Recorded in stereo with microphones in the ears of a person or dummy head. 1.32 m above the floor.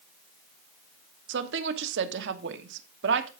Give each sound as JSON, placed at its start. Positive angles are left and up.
{"t": 1.3, "sound": "a woman speaking", "side_deg": -75, "distance_m": 1.4}